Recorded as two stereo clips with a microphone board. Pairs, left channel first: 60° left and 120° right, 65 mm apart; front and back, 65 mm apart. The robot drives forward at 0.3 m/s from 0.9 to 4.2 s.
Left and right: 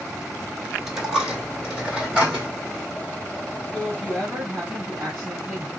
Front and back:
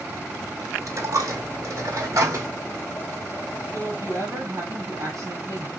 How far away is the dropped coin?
About 1.4 m.